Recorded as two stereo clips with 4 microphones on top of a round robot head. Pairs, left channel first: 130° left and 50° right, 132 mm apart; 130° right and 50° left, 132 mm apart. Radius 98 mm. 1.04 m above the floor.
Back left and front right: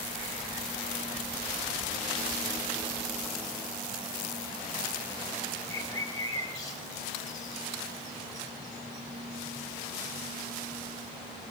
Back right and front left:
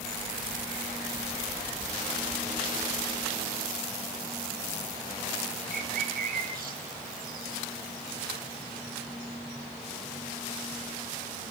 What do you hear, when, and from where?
5.7 s a bird: 65° left, 5 m